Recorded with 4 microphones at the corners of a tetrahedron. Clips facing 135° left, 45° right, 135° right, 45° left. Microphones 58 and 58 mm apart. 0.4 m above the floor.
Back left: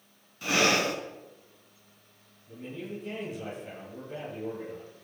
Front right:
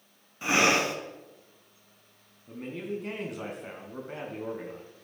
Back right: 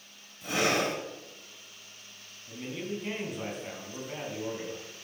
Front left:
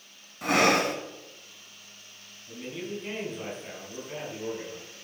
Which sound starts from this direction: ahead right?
A man speaking, at 2.5 s.